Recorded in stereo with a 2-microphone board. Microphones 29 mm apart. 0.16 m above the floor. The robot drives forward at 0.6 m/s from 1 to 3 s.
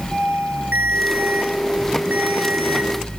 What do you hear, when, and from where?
0.7 s a ringtone: 85° right, 4.5 m; by 3.2 s 75° right (ahead or behind), 5 m